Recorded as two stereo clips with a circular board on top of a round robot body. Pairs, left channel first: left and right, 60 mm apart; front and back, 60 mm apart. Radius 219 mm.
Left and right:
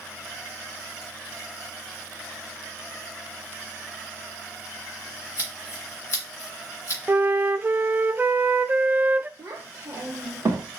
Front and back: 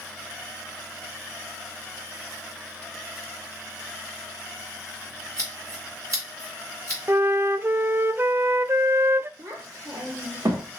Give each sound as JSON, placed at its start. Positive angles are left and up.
{"t": 5.4, "sound": "scissors", "azimuth_deg": 140, "distance_m": 1.3}
{"t": 7.1, "sound": "a flute", "azimuth_deg": -140, "distance_m": 0.5}
{"t": 9.4, "sound": "a child speaking", "azimuth_deg": -135, "distance_m": 1.1}